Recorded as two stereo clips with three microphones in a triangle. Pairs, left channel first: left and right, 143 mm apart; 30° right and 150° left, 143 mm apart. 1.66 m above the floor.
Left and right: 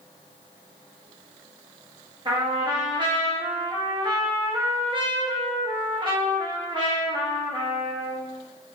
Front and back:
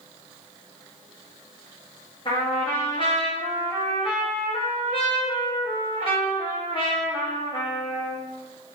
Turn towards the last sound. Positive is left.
turn(degrees=-55)